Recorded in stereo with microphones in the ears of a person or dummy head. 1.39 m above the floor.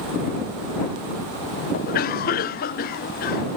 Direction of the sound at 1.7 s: 40° left (ahead or behind).